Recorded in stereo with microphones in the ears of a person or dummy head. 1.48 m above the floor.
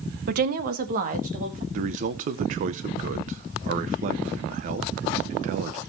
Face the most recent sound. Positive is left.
turn(degrees=-45)  # may be behind; listen again after turning